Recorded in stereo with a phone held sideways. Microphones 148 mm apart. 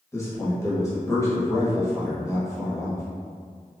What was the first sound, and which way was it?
A man speaking, 20° left (ahead or behind).